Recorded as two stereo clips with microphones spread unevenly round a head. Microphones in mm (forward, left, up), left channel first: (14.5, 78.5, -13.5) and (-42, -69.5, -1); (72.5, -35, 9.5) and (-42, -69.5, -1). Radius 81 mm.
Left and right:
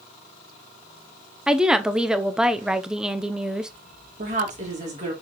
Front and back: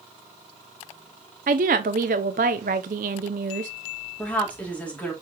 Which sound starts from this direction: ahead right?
A woman speaking, at 4.2 s.